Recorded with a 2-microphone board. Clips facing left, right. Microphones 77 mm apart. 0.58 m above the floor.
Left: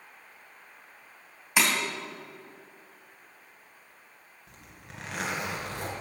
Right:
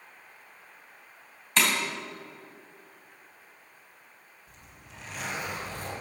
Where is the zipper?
80° left, 2.5 m.